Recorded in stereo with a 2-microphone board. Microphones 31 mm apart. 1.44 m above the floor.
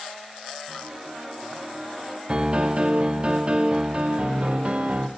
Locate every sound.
0.7 s a piano: 5° right (ahead or behind), 4 m
2.3 s a piano: 35° right (ahead or behind), 0.6 m